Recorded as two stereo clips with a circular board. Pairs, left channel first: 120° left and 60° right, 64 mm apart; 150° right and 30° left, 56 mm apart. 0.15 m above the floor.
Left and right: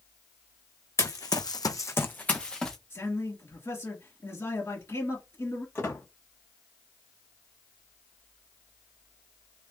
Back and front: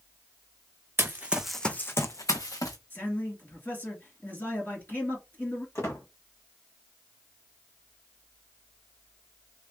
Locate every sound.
1.0 s running footsteps: 85° left, 0.8 m; by 2.8 s 155° right, 1.2 m
2.9 s a man speaking: 165° left, 2.5 m
5.8 s a squeak: 175° left, 1.8 m